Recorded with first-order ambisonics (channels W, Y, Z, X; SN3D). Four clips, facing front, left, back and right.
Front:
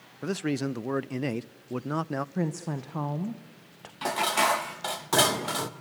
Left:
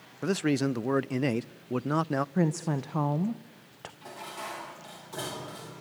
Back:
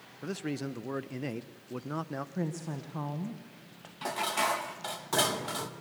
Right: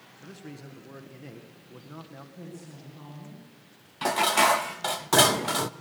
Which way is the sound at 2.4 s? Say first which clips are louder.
Left 16 dB, front 5 dB; 70° left.